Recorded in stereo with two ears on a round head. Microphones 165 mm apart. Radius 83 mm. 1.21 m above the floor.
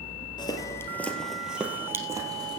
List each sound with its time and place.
0.4 s footsteps: 25° left (ahead or behind), 1.8 m; by 2.6 s 25° right (ahead or behind), 2.5 m